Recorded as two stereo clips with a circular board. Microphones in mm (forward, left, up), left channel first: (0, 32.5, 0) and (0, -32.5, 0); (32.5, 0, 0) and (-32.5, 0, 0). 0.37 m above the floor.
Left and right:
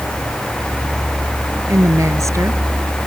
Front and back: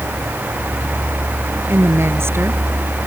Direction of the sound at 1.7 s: 130° right.